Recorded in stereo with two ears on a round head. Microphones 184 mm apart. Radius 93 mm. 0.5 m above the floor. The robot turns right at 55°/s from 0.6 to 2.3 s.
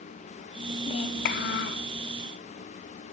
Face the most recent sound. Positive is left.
turn(degrees=110)